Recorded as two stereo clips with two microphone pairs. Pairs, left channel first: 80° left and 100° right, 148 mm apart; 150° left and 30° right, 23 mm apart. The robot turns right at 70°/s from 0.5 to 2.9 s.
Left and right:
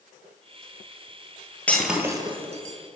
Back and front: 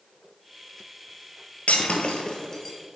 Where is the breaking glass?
160° left, 1.2 m; by 2.8 s 125° right, 1.2 m.